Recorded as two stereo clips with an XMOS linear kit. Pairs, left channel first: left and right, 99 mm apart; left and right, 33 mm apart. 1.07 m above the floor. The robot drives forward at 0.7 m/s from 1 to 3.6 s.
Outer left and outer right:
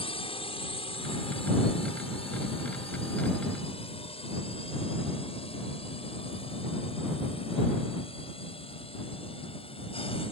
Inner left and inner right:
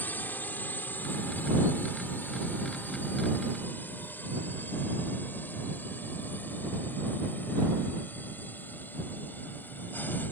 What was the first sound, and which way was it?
A drone, 65° left (ahead or behind).